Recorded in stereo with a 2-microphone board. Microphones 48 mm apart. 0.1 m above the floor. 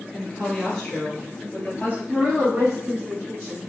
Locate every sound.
0.1 s a woman speaking: 5° left (ahead or behind), 1.9 m; by 2.0 s 30° left (ahead or behind), 2.0 m
2.1 s a woman speaking: 40° right (ahead or behind), 1.9 m